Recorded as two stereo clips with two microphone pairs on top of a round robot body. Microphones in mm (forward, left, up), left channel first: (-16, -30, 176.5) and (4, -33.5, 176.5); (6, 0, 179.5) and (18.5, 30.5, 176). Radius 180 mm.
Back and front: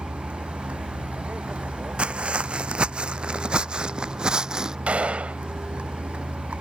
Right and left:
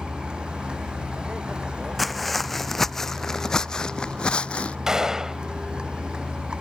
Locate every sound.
0.0 s a vehicle: 5° left
2.0 s footsteps: 25° right; by 4.8 s 60° right
4.9 s a gunshot: 10° right